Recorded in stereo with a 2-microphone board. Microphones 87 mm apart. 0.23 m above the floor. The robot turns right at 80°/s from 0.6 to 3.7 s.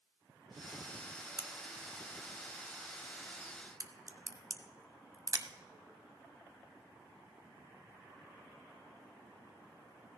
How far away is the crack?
About 0.8 m.